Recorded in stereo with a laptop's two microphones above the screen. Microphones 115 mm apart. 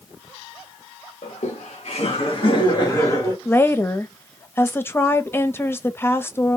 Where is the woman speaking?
20° left (ahead or behind), 0.5 m.